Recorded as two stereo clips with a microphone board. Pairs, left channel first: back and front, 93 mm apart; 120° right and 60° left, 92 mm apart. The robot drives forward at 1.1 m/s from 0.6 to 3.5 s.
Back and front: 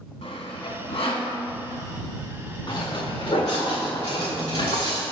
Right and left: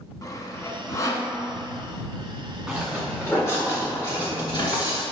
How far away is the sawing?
About 1.0 m.